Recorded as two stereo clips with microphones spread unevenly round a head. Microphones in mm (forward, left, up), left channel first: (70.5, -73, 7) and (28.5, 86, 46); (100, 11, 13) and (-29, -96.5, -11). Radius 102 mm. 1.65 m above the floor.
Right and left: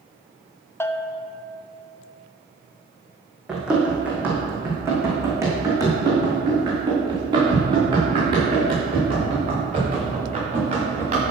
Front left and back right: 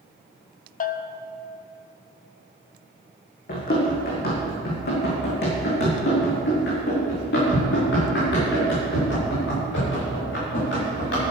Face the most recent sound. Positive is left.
turn(degrees=60)